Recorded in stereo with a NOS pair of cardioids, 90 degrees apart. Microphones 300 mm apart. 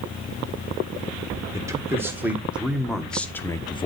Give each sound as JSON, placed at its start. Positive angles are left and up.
{"t": 1.5, "sound": "a man speaking", "azimuth_deg": -10, "distance_m": 2.0}